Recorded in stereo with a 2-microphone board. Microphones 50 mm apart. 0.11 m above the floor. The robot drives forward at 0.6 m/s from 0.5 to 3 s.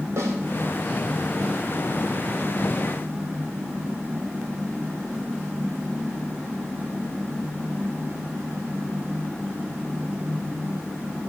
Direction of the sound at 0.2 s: 70° right (ahead or behind).